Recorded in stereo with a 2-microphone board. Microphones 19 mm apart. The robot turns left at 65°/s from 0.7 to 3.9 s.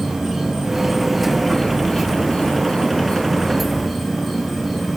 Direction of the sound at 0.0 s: 160° right.